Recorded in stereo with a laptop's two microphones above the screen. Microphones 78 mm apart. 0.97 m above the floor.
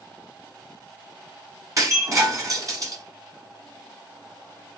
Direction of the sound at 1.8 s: 40° right (ahead or behind).